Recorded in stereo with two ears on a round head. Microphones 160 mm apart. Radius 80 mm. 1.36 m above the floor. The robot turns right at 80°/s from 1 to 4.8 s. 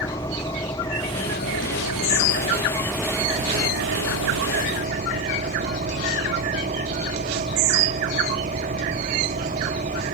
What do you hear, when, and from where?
0.0 s an engine running: 15° left; by 10.2 s 40° right